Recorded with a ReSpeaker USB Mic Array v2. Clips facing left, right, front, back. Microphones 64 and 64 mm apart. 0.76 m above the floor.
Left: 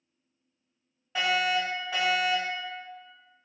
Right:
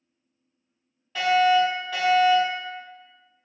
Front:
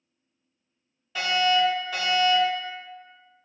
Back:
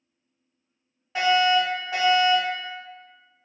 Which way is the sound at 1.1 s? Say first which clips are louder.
Right 8 dB, back 3 dB; 155° left.